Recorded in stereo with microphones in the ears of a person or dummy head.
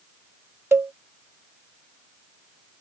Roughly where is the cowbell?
Centre.